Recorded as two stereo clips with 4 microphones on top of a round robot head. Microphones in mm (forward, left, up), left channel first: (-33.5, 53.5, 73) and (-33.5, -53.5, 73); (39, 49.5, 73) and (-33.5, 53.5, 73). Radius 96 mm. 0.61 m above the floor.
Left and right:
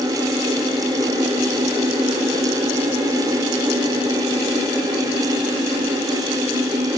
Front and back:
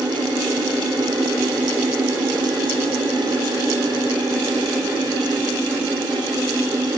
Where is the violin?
I don't hear a violin.